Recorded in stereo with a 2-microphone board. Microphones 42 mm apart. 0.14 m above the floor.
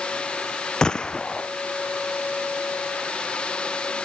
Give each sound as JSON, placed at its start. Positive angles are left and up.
{"t": 0.8, "sound": "a gunshot", "side_deg": 20}